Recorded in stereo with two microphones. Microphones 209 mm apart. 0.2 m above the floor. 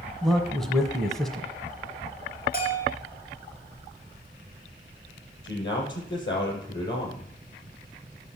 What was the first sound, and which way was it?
A man speaking, centre (ahead or behind).